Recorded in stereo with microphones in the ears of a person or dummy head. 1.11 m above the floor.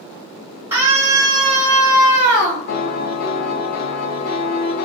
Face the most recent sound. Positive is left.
turn(degrees=60)  # may be behind; listen again after turning